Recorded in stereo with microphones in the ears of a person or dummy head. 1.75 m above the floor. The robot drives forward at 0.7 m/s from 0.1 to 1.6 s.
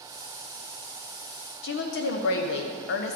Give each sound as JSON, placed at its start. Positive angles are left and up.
{"t": 1.6, "sound": "a woman speaking", "side_deg": 60, "distance_m": 1.0}